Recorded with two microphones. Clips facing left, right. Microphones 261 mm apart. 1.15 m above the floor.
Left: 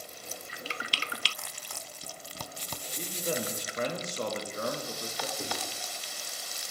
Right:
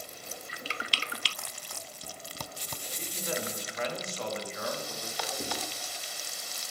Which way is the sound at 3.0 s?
45° left (ahead or behind).